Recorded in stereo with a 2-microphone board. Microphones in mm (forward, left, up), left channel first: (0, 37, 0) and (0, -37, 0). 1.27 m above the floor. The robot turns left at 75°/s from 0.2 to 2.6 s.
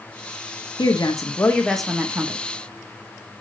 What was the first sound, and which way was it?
A woman speaking, 75° left.